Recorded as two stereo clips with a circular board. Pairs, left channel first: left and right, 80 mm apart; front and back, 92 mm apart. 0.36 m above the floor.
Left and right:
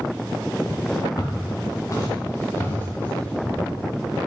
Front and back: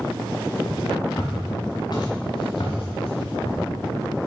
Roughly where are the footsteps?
Ahead left.